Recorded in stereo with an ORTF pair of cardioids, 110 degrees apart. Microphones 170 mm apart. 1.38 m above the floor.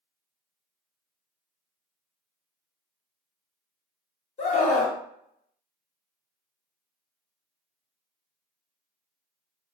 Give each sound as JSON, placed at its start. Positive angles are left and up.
{"t": 4.4, "sound": "a scream", "azimuth_deg": 45, "distance_m": 1.2}